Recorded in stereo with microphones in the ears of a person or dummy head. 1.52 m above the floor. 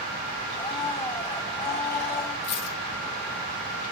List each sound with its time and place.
0.6 s a blender: 15° left (ahead or behind), 4.5 m
2.4 s a dropped coin: 35° left (ahead or behind), 1.9 m